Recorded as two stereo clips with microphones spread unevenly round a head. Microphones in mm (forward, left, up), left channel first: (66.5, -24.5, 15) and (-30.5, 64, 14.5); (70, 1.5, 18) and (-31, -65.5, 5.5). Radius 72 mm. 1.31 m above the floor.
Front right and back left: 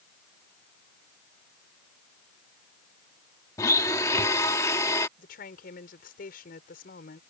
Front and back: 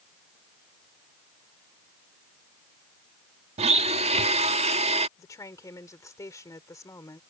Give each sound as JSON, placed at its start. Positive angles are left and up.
{"t": 3.6, "sound": "a blender", "azimuth_deg": -110}
{"t": 5.2, "sound": "a woman speaking", "azimuth_deg": -30}